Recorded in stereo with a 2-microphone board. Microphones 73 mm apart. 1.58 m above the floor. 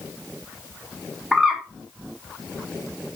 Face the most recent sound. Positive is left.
turn(degrees=-10)  # may be behind; listen again after turning